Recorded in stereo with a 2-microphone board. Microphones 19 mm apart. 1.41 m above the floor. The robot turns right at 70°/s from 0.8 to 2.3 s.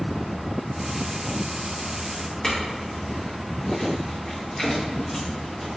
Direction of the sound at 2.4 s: 40° left (ahead or behind).